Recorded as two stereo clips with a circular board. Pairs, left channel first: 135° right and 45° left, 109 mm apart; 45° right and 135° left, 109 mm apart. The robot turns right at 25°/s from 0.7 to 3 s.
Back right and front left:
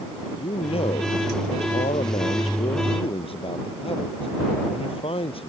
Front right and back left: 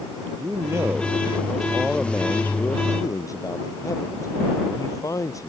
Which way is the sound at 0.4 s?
160° right.